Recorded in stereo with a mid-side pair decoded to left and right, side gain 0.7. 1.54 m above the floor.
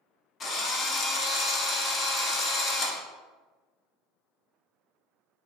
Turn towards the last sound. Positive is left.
turn(degrees=30)